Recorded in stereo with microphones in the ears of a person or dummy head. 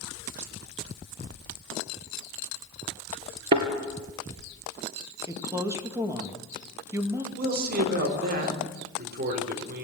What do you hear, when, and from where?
3.5 s a thud: 35° right (ahead or behind), 2.5 m
5.3 s a woman speaking: 15° right (ahead or behind), 1.8 m
7.4 s a man speaking: 60° right (ahead or behind), 4 m